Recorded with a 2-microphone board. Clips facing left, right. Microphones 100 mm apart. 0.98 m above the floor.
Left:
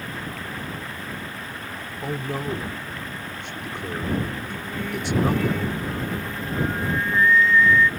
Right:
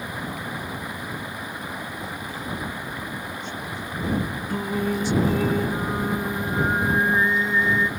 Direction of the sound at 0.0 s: 15° right (ahead or behind).